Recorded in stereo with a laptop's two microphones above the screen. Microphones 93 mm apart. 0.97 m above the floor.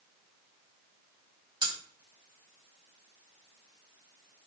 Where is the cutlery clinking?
55° right (ahead or behind), 1.8 m.